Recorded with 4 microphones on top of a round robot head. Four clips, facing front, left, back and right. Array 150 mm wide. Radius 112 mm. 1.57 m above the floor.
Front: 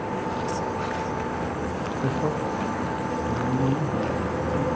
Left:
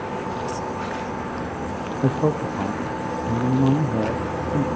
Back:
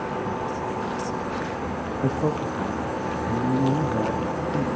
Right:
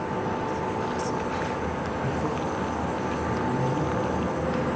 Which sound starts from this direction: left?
A man speaking, at 2.0 s.